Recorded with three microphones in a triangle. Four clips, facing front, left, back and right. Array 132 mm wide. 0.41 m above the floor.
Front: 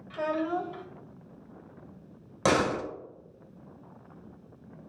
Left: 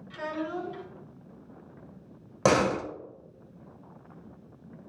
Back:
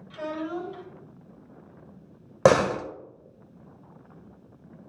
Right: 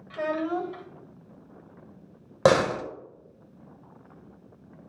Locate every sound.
0.1 s a child speaking: 65° right, 1.6 m
2.5 s a door slam: 155° right, 1.2 m